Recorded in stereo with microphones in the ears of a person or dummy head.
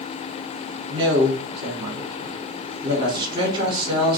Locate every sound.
0.9 s a woman speaking: 25° right (ahead or behind), 2.5 m